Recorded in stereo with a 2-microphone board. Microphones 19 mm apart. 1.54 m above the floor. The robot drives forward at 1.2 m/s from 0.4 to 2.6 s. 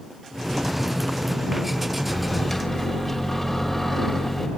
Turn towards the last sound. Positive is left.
turn(degrees=5)  # may be behind; listen again after turning